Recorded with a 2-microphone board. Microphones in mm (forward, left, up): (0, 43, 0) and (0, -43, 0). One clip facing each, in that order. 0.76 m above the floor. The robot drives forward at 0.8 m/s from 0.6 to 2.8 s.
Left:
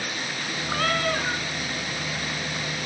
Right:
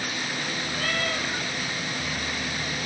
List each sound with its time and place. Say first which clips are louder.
0.7 s a cat meowing: left 6 dB; 85° left, 3.5 m; by 1.4 s 80° left, 3.5 m